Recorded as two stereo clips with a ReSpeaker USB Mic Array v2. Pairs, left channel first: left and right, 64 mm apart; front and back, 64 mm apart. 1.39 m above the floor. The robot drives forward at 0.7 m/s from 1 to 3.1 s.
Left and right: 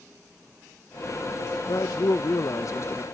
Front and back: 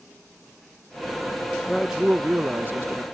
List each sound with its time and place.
1.7 s a man speaking: 90° left; by 3.0 s 135° left